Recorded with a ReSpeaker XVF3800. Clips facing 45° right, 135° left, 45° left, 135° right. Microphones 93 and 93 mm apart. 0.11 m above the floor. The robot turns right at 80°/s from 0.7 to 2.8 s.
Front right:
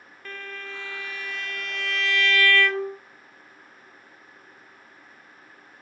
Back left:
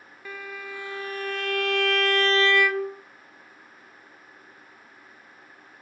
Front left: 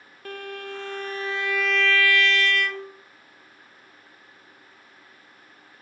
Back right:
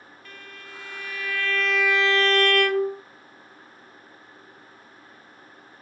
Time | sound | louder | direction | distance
0.2 | a violin | back left 1 dB, front left 12 dB | 55° left | 0.6 m